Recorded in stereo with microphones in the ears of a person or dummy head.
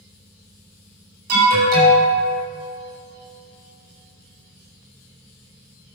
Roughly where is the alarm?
Right.